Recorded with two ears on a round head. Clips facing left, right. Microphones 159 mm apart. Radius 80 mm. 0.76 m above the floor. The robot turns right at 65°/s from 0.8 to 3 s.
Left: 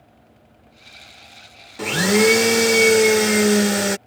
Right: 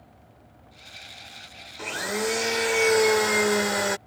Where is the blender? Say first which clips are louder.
Left 12 dB; 70° left; by 4.0 s 145° left.